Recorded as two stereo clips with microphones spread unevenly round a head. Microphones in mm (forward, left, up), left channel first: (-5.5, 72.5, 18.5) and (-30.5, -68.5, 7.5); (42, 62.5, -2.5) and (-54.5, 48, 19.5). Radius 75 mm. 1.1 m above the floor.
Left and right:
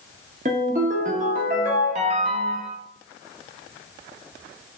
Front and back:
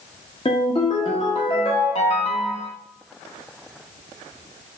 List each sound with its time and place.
0.5 s a ringtone: 55° right, 0.8 m